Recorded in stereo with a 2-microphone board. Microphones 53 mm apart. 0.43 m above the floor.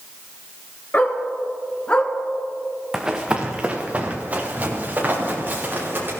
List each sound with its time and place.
0.9 s a dog barking: 35° left (ahead or behind), 2.5 m; by 2.1 s 20° left (ahead or behind), 1.8 m
2.9 s running footsteps: 10° right (ahead or behind), 1.9 m; by 6.1 s 40° right (ahead or behind), 5.5 m